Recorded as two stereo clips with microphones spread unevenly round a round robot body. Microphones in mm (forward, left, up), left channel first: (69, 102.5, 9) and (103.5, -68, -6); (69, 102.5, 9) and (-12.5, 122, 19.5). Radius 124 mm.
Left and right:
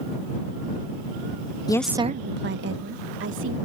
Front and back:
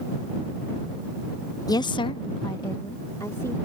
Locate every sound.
1.7 s a woman speaking: 30° left; by 3.6 s 90° right